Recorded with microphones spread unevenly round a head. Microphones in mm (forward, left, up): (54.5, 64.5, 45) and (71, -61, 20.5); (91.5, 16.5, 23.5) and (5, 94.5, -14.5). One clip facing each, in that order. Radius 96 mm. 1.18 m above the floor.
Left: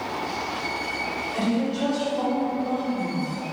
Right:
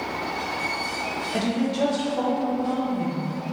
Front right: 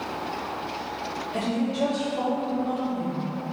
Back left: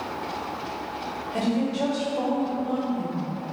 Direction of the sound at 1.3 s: 130° right.